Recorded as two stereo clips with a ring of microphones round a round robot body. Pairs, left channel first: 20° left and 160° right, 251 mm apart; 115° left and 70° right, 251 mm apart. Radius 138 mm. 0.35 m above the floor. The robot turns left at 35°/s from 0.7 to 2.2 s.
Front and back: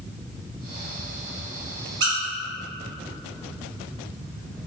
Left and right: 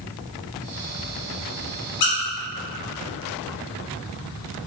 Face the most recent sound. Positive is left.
turn(degrees=150)